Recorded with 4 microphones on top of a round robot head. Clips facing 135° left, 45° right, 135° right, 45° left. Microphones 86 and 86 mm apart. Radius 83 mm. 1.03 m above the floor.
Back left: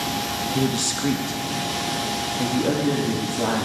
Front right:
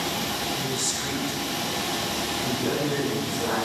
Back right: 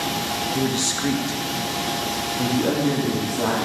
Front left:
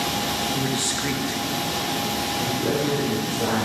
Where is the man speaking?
155° left, 1.4 m; by 3.6 s straight behind, 2.5 m.